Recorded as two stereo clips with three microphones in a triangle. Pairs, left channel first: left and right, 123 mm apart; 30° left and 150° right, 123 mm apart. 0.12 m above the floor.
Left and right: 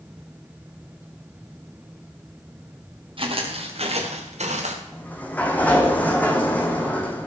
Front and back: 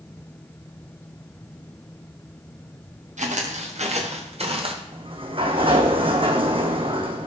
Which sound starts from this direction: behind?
A sliding door, at 4.9 s.